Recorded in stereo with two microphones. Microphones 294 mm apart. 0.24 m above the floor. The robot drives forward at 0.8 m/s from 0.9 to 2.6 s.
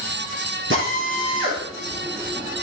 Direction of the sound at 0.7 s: 45° right (ahead or behind).